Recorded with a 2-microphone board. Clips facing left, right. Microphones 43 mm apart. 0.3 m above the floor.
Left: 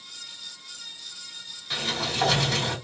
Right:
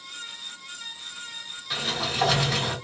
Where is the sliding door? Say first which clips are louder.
Even; 5° right (ahead or behind), 1.7 m.